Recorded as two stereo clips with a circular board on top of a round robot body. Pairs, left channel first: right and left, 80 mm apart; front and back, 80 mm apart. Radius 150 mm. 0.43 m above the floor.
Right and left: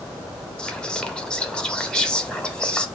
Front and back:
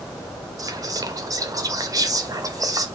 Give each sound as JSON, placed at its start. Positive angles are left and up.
{"t": 0.6, "sound": "whispering", "azimuth_deg": -165, "distance_m": 1.3}